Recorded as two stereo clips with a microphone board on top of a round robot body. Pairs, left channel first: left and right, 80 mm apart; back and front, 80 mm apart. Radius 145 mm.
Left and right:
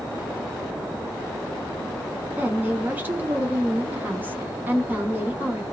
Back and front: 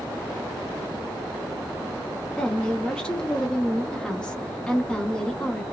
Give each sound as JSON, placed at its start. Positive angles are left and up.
{"t": 2.4, "sound": "a woman speaking", "azimuth_deg": -120, "distance_m": 1.1}